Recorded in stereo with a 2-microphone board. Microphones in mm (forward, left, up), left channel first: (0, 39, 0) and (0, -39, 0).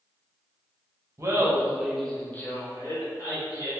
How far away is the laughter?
About 0.7 m.